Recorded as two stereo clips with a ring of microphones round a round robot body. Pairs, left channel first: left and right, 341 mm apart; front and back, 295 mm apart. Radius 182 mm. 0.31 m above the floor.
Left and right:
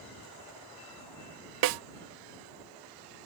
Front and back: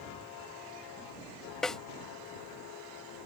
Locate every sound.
1.6 s a snare drum: 90° right